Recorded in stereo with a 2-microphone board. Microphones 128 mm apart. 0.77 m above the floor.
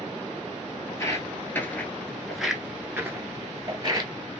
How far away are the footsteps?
About 1.1 m.